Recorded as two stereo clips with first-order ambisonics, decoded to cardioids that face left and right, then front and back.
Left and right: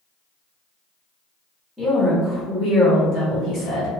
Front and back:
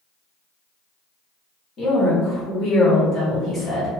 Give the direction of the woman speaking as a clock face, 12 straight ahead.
12 o'clock.